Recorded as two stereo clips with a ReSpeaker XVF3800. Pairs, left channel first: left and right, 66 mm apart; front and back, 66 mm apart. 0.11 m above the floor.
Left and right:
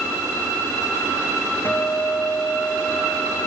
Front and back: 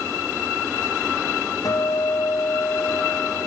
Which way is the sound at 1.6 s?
25° left.